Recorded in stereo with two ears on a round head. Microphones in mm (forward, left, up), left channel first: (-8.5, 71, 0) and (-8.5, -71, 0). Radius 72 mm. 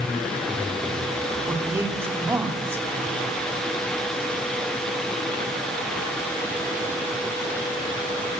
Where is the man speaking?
15° right (ahead or behind), 4 m.